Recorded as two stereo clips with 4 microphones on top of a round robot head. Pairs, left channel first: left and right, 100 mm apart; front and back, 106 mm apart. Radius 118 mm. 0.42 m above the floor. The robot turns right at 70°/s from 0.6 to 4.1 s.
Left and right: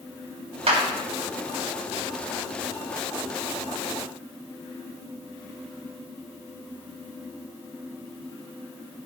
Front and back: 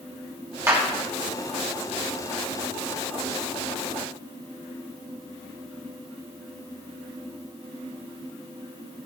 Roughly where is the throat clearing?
I don't hear throat clearing.